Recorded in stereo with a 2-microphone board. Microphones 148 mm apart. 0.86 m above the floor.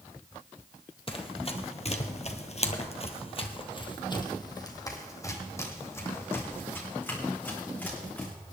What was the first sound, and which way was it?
Running footsteps, 40° left (ahead or behind).